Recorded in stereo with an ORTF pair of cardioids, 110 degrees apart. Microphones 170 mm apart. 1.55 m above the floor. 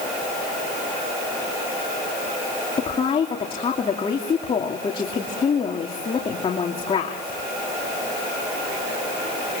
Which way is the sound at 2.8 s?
35° left.